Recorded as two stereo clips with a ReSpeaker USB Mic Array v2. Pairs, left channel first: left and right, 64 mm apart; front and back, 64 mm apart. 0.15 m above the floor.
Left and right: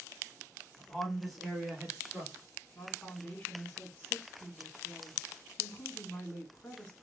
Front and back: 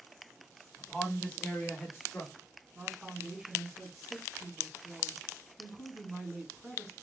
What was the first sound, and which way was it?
A man speaking, 85° left.